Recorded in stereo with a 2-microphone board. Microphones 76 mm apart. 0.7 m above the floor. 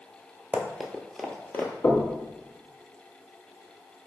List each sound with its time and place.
0.5 s running footsteps: 20° right (ahead or behind), 0.7 m; by 1.7 s 30° left (ahead or behind), 0.7 m
1.8 s knocking: 50° left (ahead or behind), 1.2 m